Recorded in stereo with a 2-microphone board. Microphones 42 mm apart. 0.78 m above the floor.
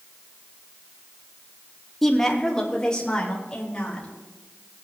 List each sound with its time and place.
2.0 s a woman speaking: 5° left (ahead or behind), 1.4 m; by 4.1 s 25° left (ahead or behind), 4 m